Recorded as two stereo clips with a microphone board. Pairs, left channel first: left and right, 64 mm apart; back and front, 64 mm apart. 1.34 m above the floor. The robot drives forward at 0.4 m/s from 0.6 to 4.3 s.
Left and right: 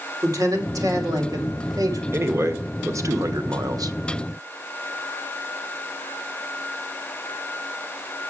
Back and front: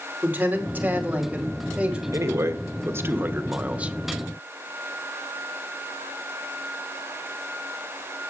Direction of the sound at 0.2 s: 65° right.